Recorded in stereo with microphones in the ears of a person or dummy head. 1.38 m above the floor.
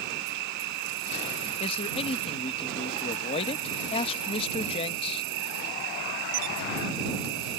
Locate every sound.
0.0 s an insect: 70° right (ahead or behind)
1.6 s a man speaking: 40° left (ahead or behind)